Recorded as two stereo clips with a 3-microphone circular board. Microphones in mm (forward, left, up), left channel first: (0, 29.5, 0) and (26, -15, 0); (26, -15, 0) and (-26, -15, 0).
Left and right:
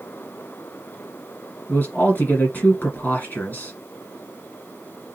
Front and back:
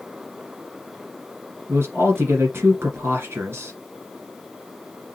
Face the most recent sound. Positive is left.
turn(degrees=160)